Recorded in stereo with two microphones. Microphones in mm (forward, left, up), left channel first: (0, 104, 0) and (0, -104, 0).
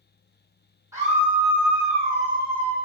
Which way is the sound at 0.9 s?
15° right (ahead or behind).